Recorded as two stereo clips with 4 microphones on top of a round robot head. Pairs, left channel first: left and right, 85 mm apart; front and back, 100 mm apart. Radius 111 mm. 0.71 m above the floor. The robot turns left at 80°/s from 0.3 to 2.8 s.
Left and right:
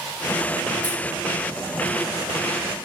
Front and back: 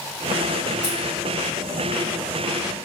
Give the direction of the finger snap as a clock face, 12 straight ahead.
No finger snap in this recording.